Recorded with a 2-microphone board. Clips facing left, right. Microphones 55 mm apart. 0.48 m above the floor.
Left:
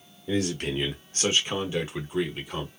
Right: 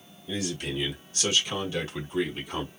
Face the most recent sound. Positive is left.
turn(degrees=0)  # may be behind; listen again after turning